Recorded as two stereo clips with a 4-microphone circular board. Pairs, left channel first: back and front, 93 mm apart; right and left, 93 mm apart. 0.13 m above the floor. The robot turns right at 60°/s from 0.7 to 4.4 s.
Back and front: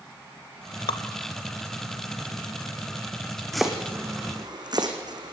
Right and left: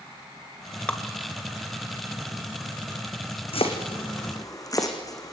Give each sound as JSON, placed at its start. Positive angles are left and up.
{"t": 0.9, "sound": "dripping", "azimuth_deg": -165, "distance_m": 0.8}
{"t": 3.5, "sound": "chopping", "azimuth_deg": -90, "distance_m": 3.5}